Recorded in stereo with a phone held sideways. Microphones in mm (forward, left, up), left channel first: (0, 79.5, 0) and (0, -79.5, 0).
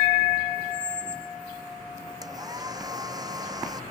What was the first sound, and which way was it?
A squeak, 10° right (ahead or behind).